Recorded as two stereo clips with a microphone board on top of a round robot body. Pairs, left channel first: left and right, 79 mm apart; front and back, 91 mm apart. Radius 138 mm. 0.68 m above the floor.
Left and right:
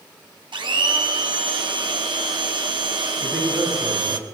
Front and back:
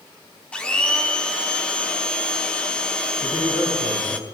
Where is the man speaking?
20° right, 7.5 m.